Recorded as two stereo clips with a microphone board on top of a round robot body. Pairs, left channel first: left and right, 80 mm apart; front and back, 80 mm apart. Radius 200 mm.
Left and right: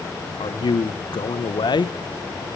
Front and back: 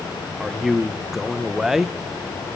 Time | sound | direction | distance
0.4 | a man speaking | 95° left | 1.3 m